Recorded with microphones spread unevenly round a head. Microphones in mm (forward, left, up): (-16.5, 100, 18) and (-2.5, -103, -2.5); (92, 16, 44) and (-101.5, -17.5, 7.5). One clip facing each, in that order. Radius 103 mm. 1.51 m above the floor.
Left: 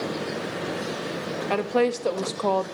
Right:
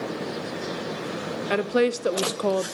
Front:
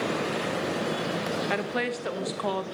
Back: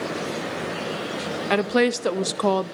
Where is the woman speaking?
155° right, 0.9 m.